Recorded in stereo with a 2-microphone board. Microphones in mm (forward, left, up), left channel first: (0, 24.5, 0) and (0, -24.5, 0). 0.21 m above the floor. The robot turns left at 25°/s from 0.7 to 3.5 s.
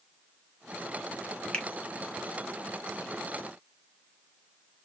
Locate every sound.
1.5 s a finger snap: 20° left (ahead or behind), 1.2 m